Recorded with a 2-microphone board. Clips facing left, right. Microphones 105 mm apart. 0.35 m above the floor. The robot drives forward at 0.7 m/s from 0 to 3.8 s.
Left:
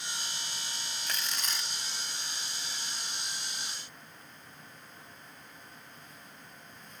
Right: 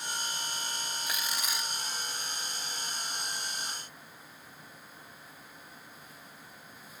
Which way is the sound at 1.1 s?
10° right (ahead or behind).